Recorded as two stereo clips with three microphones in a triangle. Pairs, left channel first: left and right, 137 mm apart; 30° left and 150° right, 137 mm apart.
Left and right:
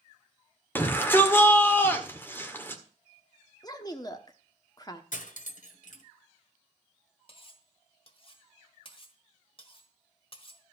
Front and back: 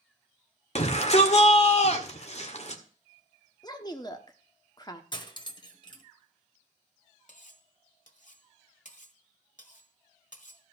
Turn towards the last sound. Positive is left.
turn(degrees=45)